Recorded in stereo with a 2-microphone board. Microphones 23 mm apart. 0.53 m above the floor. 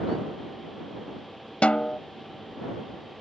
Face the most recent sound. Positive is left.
turn(degrees=65)  # may be behind; listen again after turning